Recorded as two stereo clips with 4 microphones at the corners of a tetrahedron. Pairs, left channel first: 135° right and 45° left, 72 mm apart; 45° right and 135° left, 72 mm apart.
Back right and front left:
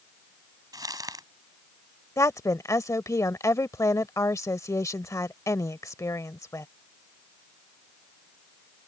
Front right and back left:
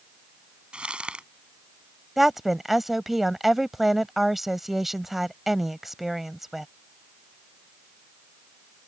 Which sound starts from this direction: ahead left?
Crumpling, at 0.7 s.